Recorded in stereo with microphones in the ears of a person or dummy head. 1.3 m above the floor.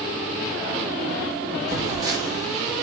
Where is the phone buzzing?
20° right (ahead or behind), 1.1 m.